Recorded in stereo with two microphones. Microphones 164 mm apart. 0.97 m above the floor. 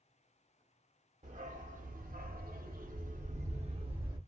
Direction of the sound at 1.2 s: 45° right (ahead or behind).